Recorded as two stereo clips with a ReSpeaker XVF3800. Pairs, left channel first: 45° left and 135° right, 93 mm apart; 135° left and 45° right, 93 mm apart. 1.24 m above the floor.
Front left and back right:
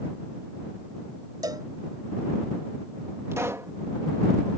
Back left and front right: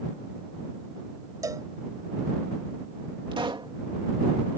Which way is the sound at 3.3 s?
75° right.